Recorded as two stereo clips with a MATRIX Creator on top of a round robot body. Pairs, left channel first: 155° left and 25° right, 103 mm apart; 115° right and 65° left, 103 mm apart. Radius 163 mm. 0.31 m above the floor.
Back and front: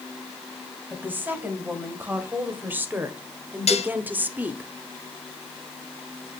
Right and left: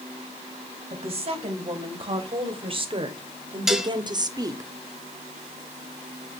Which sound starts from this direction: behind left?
Dishes clattering, at 3.7 s.